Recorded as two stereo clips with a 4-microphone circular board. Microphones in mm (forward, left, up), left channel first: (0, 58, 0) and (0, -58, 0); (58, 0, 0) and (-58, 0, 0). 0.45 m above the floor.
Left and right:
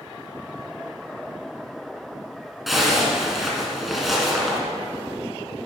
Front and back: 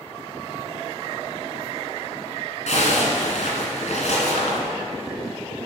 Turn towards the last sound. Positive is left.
turn(degrees=0)